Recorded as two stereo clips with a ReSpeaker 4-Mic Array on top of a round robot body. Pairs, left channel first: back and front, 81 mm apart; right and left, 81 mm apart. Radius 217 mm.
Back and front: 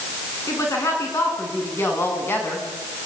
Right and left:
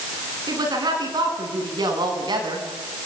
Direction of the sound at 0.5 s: 125° left.